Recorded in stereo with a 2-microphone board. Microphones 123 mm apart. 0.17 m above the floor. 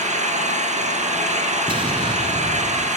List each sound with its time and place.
0.0 s an engine running: 75° right (ahead or behind), 4.5 m
1.7 s an explosion: 40° right (ahead or behind), 3 m